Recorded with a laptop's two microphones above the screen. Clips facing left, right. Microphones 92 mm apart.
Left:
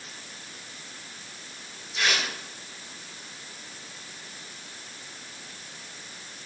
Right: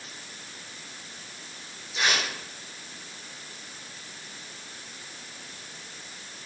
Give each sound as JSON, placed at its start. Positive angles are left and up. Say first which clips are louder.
{"t": 1.9, "sound": "tearing paper", "louder": "right 1 dB", "side_deg": -15, "distance_m": 4.5}